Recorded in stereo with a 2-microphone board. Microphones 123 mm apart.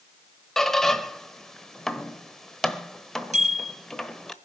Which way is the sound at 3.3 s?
70° right (ahead or behind).